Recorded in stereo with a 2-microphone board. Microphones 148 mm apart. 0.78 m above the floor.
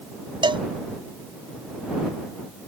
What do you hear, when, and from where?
0.4 s a cowbell: 35° right (ahead or behind)